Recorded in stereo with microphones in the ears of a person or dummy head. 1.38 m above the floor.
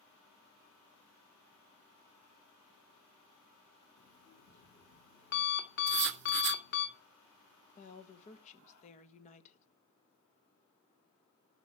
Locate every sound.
4.0 s an alarm clock: 50° left (ahead or behind), 2.5 m
5.9 s writing: 55° right (ahead or behind), 0.5 m
7.8 s a woman speaking: 45° left (ahead or behind), 1.6 m